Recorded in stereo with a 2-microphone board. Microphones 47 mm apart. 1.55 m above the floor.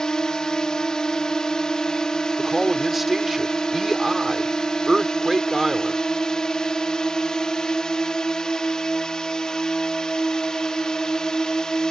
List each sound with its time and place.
0.0 s a drone: 15° left (ahead or behind)
2.4 s a man speaking: 5° right (ahead or behind)